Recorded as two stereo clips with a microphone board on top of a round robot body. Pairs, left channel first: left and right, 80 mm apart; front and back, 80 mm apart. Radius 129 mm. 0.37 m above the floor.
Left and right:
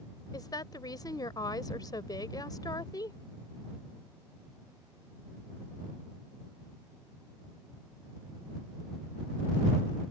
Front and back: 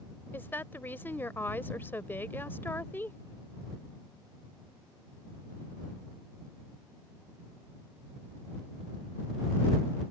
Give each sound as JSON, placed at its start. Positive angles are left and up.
{"t": 0.3, "sound": "a woman speaking", "azimuth_deg": 60}